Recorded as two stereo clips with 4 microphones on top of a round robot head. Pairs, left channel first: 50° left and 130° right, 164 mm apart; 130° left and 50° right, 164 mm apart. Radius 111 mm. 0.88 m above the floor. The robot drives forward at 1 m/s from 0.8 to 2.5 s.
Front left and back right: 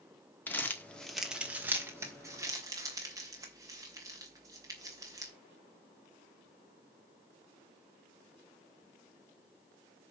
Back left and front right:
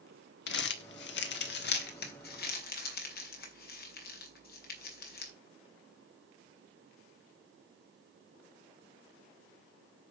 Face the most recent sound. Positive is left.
turn(degrees=160)